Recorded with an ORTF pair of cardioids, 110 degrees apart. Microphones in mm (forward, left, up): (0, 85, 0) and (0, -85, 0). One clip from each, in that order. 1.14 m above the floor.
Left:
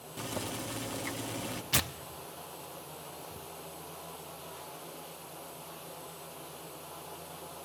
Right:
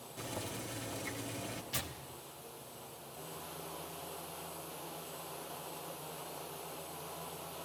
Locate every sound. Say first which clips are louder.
0.2 s boiling: left 5 dB; 35° left, 1.3 m
1.7 s tearing paper: left 9 dB; 55° left, 0.7 m